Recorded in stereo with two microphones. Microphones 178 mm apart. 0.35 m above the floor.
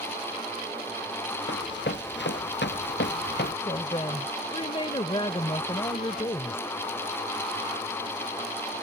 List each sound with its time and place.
1.5 s running footsteps: 80° left; by 3.5 s 70° left (ahead or behind)
3.6 s a woman speaking: 30° left (ahead or behind)